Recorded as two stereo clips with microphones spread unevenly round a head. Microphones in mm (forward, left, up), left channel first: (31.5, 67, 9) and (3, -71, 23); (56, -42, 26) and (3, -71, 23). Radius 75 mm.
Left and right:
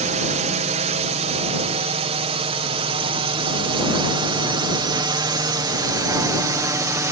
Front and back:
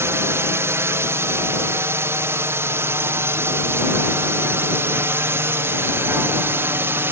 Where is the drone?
130° right; by 7.1 s 165° right.